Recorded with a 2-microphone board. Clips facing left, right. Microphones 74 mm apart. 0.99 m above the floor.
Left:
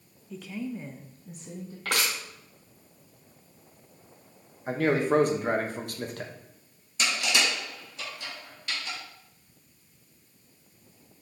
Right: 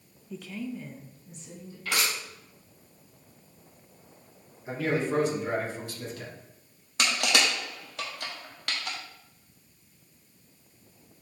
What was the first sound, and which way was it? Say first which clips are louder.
A woman speaking: left 1 dB; 5° right (ahead or behind).